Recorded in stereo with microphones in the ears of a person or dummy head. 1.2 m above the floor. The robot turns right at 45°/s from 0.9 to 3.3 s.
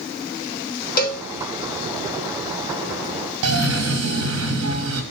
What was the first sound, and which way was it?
A cowbell, 50° left (ahead or behind).